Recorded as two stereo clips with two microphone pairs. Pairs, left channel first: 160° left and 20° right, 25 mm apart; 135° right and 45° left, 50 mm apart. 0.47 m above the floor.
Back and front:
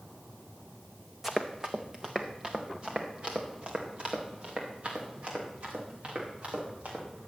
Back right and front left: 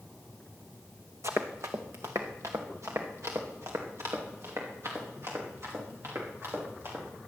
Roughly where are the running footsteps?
Ahead left.